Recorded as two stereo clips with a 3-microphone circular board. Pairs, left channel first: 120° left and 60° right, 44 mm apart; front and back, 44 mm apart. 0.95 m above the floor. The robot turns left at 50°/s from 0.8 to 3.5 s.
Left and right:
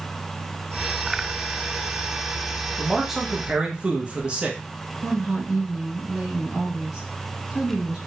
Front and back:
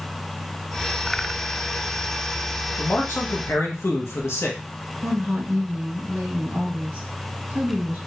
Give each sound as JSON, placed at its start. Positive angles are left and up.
{"t": 2.8, "sound": "a man speaking", "azimuth_deg": 40, "distance_m": 0.7}
{"t": 5.0, "sound": "a woman speaking", "azimuth_deg": -145, "distance_m": 1.9}